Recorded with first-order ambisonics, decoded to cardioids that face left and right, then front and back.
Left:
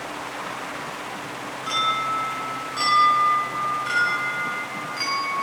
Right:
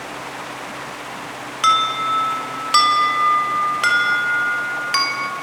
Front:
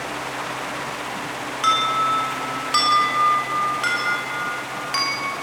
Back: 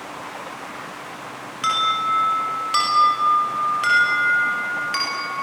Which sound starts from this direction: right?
An alarm, at 1.6 s.